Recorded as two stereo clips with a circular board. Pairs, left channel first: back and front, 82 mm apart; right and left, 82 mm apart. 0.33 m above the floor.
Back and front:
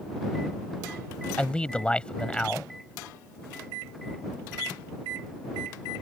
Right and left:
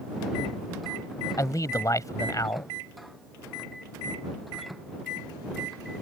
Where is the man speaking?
110° right.